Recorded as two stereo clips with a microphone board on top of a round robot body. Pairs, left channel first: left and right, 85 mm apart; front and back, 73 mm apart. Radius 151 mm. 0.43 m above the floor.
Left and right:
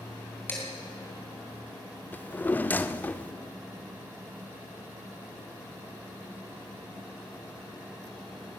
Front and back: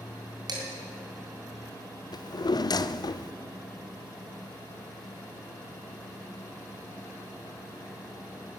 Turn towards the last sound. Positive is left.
turn(degrees=20)